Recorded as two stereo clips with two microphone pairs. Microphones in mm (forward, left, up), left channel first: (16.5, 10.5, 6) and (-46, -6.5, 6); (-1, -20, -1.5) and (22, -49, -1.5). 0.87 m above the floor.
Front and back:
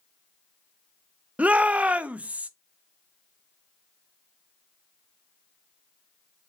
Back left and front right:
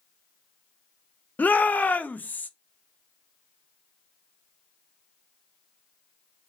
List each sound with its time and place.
1.4 s a shout: 140° left, 0.5 m